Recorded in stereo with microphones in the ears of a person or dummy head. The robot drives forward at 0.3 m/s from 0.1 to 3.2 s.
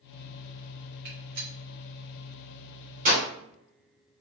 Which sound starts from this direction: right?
A gunshot, at 1.1 s.